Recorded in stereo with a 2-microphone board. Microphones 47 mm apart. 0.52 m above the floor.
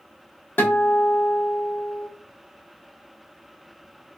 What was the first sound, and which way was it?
A guitar, 45° left (ahead or behind).